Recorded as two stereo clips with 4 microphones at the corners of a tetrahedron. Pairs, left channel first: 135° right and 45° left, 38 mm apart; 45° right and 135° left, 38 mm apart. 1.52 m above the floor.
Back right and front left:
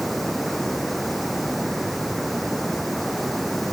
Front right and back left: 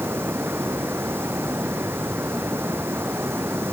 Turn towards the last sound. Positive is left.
turn(degrees=140)